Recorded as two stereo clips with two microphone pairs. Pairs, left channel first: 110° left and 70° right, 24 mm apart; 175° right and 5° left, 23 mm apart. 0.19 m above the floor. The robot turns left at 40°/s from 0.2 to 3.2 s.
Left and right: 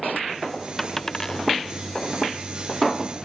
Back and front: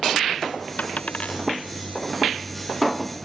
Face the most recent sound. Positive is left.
turn(degrees=95)